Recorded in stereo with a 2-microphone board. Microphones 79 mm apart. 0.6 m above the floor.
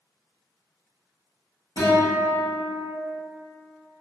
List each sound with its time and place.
1.8 s a guitar: 70° left (ahead or behind), 1.9 m